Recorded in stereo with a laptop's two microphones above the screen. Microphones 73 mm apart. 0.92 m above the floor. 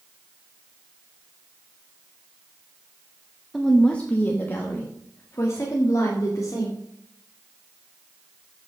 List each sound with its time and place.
3.5 s a woman speaking: centre (ahead or behind), 0.9 m; by 6.8 s 50° left (ahead or behind), 2.5 m